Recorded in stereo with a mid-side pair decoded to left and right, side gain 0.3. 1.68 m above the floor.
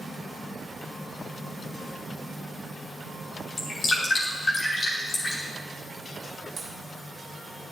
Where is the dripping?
70° left, 3 m.